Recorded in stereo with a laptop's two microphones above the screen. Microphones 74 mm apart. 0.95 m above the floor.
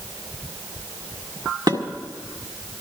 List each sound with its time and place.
1.7 s dishes clattering: 70° right (ahead or behind), 1.8 m